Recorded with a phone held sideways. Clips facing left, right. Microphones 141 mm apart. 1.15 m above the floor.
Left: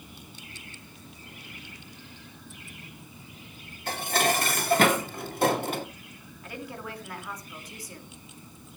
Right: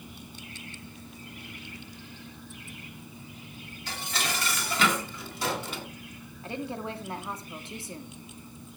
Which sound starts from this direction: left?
Dishes clattering, at 3.9 s.